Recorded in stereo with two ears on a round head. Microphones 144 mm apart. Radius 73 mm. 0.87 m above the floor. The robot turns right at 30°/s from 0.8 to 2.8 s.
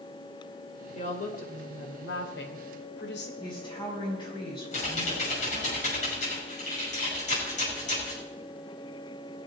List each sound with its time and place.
0.9 s a woman speaking: 45° left, 2.5 m; by 3.3 s 100° left, 2.5 m
3.4 s a woman speaking: 30° left (ahead or behind), 6.5 m
4.7 s typing on a keyboard: 50° left (ahead or behind), 6.5 m